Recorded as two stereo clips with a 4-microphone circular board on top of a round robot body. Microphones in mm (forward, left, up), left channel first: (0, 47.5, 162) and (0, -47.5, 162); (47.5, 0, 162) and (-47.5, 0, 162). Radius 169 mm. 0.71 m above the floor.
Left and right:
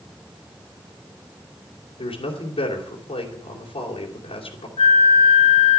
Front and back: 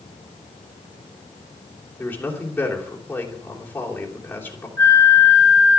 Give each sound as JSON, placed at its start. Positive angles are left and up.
{"t": 2.0, "sound": "a man speaking", "azimuth_deg": 75, "distance_m": 3.5}
{"t": 4.8, "sound": "a flute", "azimuth_deg": 70, "distance_m": 0.6}